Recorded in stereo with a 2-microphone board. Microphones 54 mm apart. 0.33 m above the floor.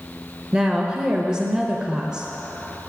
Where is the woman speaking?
15° right (ahead or behind), 0.8 m.